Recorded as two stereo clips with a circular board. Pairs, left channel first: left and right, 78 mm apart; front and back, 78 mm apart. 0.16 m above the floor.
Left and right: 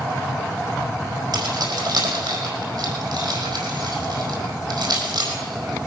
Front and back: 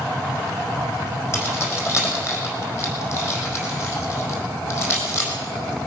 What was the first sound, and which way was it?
Keys jangling, 55° right.